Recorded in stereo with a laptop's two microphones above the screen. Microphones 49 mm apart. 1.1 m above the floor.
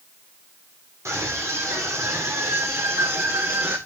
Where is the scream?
85° right, 3.5 m; by 3.8 s 55° right (ahead or behind), 4 m.